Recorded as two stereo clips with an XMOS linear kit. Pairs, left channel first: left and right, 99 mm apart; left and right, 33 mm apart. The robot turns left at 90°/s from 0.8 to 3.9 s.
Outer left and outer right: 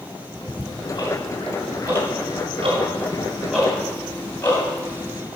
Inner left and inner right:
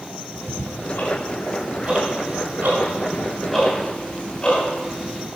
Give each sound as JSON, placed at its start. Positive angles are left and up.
{"t": 0.3, "sound": "ticking", "side_deg": 70, "distance_m": 2.0}